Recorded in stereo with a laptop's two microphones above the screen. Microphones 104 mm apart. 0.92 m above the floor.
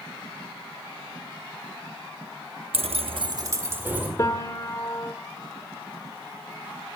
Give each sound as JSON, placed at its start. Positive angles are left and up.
{"t": 2.7, "sound": "keys jangling", "side_deg": -70, "distance_m": 0.8}
{"t": 4.2, "sound": "a piano", "side_deg": 35, "distance_m": 1.2}